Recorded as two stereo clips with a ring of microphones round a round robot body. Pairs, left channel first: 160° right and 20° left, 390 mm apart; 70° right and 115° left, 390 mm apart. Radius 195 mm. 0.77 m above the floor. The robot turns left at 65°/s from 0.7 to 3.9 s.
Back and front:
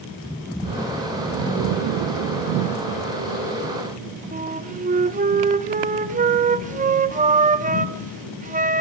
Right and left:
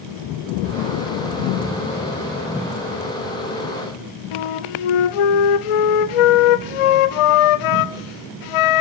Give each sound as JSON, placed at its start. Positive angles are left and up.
{"t": 4.3, "sound": "a flute", "azimuth_deg": -50, "distance_m": 0.6}